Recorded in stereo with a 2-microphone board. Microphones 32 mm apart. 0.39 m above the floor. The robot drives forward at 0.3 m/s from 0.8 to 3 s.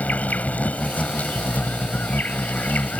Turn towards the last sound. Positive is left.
turn(degrees=60)  # may be behind; listen again after turning